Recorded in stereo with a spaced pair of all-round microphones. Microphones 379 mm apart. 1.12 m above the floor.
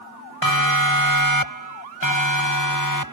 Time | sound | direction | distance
0.4 | a siren | 60° left (ahead or behind) | ?